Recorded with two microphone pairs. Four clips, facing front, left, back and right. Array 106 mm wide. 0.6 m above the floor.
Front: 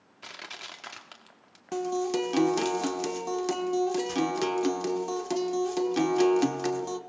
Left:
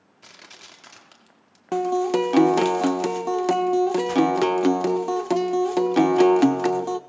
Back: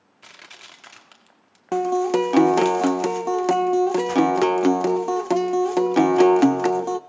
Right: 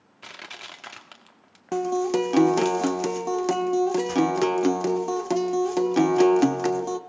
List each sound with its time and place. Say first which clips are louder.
0.2 s crushing: right 7 dB, front 3 dB; 55° right, 1.5 m
1.7 s a guitar: left 2 dB, back 8 dB; 165° left, 0.9 m